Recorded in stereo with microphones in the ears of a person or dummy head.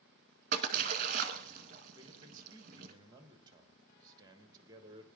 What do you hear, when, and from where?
0.5 s a splash: 45° right (ahead or behind), 1.3 m
2.0 s a man speaking: 20° right (ahead or behind), 1.5 m